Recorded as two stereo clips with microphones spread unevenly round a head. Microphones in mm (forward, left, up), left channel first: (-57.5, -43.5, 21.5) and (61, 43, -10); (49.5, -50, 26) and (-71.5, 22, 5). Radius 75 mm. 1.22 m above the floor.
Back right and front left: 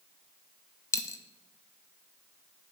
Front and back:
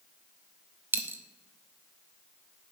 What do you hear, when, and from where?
0.9 s a dropped coin: 130° right, 0.6 m